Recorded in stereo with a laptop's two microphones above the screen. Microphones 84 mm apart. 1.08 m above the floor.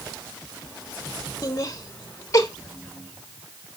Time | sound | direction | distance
1.4 | laughter | 40° left (ahead or behind) | 1.3 m